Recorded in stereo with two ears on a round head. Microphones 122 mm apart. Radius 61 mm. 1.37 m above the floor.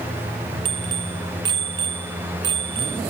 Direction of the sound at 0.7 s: 35° right (ahead or behind).